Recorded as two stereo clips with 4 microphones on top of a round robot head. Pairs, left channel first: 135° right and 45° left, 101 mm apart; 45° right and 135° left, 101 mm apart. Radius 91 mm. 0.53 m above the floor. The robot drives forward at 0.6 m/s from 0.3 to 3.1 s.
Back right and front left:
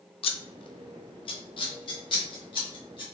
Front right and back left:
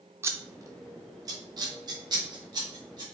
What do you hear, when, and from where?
0.2 s scissors: 160° right, 0.5 m; by 3.0 s 175° right, 2 m